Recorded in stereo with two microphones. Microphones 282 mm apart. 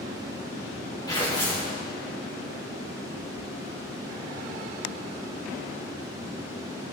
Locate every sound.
1.1 s tearing paper: 15° left (ahead or behind), 5 m